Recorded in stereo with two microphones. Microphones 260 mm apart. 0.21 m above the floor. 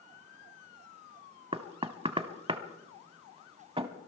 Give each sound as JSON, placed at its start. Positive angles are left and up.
{"t": 1.5, "sound": "knocking", "side_deg": -20, "distance_m": 0.7}